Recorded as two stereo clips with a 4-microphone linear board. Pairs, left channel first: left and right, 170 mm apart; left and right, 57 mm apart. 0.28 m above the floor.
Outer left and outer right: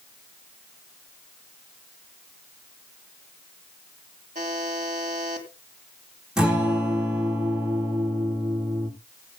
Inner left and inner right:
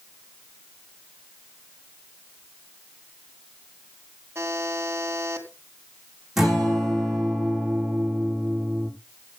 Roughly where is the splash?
I don't hear a splash.